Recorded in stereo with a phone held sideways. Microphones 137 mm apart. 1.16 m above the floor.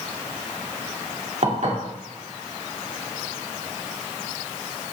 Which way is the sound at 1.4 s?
60° right (ahead or behind).